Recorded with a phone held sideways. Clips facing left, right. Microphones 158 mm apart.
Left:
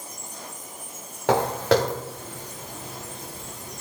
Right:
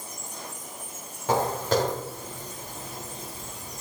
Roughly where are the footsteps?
Left.